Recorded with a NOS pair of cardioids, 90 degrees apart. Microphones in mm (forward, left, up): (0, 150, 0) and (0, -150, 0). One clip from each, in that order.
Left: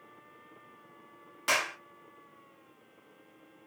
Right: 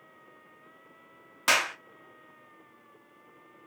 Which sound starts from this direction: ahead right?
A clap, at 1.5 s.